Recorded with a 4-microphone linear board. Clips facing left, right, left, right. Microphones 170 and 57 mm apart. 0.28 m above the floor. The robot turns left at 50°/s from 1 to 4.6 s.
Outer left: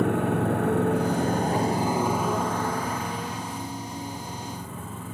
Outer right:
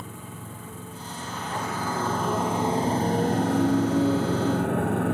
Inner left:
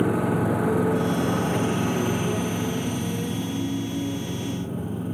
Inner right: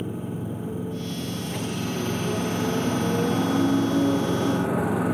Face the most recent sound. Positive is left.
turn(degrees=-115)